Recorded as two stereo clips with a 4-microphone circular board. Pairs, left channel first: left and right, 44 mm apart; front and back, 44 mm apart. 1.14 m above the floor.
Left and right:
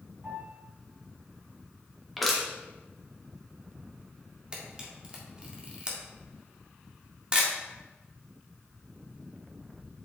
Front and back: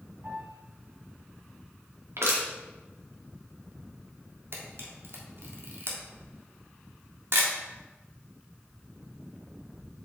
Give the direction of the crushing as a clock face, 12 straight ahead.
6 o'clock.